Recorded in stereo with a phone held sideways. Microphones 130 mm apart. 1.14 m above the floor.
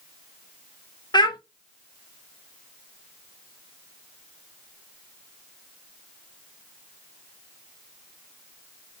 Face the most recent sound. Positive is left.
turn(degrees=35)  # may be behind; listen again after turning